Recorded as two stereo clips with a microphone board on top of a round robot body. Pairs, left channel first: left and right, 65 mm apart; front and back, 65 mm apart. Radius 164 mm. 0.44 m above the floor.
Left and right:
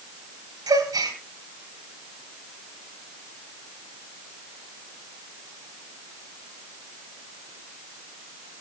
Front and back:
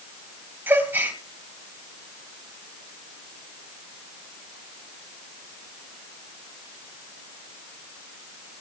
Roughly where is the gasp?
Behind right.